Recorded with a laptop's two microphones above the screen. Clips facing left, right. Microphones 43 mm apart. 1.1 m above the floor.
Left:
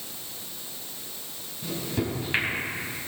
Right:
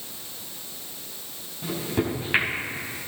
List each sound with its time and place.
1.6 s a microwave: 15° right (ahead or behind), 5.5 m